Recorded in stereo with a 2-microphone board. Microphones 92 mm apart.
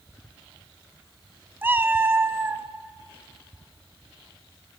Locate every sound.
1.6 s a cat meowing: 25° right (ahead or behind), 0.9 m